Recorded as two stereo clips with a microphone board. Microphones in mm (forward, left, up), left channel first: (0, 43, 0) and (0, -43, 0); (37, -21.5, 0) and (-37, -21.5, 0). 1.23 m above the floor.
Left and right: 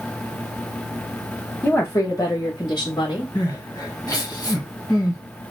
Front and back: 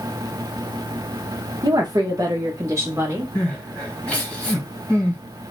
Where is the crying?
70° left, 1.4 m.